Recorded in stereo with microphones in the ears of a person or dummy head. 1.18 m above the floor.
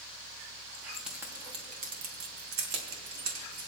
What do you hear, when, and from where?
0.7 s keys jangling: 10° left (ahead or behind), 1.7 m; by 3.7 s 85° right, 3 m